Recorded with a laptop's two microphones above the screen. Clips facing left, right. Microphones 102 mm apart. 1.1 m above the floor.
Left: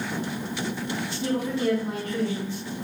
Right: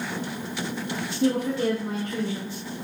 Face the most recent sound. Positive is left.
turn(degrees=-30)  # may be behind; listen again after turning